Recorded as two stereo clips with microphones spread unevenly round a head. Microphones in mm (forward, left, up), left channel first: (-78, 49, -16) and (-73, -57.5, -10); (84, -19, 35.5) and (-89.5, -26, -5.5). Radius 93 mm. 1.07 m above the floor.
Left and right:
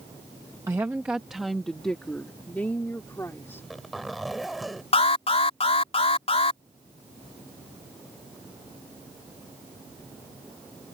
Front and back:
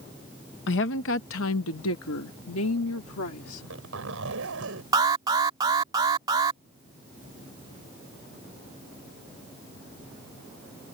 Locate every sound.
0.7 s a woman speaking: 15° right; by 3.7 s 15° left
3.5 s a zipper: 175° right
4.9 s an alarm: 115° left